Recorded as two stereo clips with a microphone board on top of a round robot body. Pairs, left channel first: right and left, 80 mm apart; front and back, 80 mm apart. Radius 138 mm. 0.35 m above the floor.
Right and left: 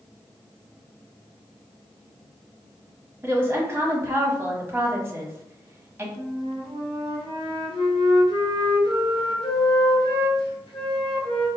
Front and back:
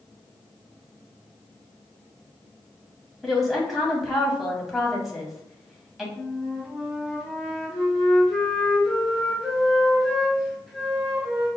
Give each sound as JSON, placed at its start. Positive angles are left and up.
{"t": 3.2, "sound": "a woman speaking", "azimuth_deg": 90, "distance_m": 1.1}
{"t": 6.2, "sound": "a flute", "azimuth_deg": -95, "distance_m": 1.2}